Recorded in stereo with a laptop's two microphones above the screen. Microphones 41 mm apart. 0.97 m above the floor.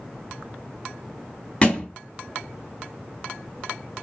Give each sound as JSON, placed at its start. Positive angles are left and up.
{"t": 1.6, "sound": "a thud", "side_deg": 30, "distance_m": 1.0}